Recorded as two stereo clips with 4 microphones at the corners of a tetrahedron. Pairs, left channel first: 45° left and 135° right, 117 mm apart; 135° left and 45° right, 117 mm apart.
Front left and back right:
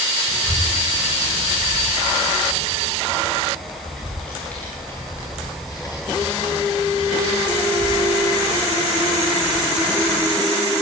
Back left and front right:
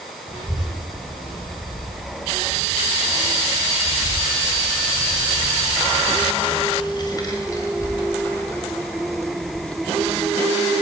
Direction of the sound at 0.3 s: 155° left.